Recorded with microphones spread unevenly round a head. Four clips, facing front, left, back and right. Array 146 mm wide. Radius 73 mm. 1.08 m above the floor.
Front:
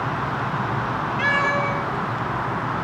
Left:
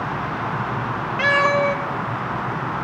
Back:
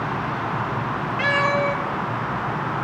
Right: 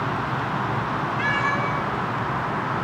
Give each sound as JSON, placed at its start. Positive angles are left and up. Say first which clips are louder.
{"t": 1.2, "sound": "a cat meowing", "louder": "left 9 dB, back 2 dB", "azimuth_deg": 95, "distance_m": 3.0}